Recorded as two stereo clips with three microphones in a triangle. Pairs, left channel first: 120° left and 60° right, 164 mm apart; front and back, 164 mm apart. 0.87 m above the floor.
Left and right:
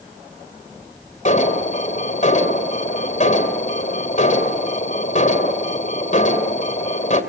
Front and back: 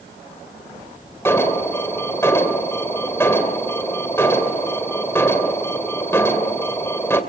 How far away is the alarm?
About 2.5 m.